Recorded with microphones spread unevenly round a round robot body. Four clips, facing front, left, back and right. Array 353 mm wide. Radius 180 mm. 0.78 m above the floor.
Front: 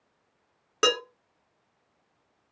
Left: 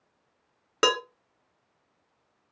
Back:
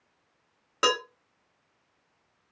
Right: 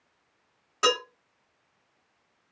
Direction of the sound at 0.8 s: 90° left.